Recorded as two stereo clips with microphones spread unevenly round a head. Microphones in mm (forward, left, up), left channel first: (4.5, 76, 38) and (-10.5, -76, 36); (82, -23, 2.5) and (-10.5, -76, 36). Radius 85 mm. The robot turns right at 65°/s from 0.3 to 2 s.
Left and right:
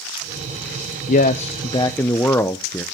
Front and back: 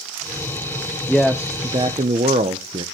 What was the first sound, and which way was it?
A man speaking, 95° left.